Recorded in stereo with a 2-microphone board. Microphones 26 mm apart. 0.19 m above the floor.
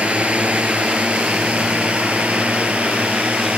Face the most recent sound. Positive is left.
turn(degrees=-65)  # may be behind; listen again after turning